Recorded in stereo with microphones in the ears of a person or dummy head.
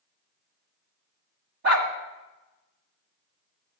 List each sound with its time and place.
1.6 s a dog barking: 55° right (ahead or behind), 1.7 m